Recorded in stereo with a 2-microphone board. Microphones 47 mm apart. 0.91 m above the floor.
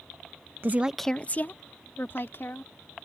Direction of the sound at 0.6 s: 45° right (ahead or behind).